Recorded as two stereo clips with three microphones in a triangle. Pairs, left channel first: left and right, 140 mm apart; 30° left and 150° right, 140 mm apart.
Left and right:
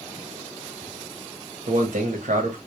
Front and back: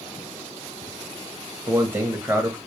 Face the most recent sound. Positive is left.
turn(degrees=-75)